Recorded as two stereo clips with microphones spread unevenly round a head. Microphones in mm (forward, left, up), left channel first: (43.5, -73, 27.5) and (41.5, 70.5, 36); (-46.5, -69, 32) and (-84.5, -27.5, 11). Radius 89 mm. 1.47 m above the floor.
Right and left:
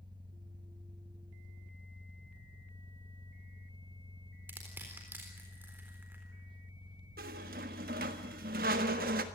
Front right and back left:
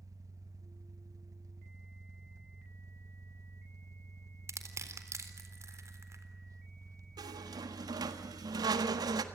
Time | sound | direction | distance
0.0 | an engine running | 155° left | 1.7 m
4.5 | crushing | 170° left | 3.5 m
7.2 | a squeak | 130° left | 1.5 m